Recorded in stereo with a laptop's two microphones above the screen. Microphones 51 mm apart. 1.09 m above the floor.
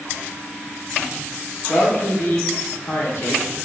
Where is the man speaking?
55° left (ahead or behind), 1.0 m.